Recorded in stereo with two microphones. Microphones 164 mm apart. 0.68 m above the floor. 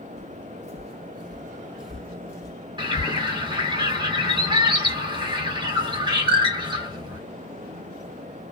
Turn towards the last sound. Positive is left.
turn(degrees=-25)  # may be behind; listen again after turning